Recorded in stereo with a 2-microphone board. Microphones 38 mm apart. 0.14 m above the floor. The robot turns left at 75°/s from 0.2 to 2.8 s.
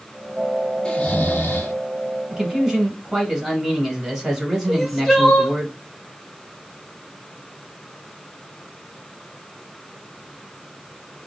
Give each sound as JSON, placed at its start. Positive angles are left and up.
{"t": 0.8, "sound": "snoring", "azimuth_deg": 160, "distance_m": 0.7}
{"t": 2.3, "sound": "a man speaking", "side_deg": -20, "distance_m": 1.0}
{"t": 4.7, "sound": "crying", "side_deg": -5, "distance_m": 0.8}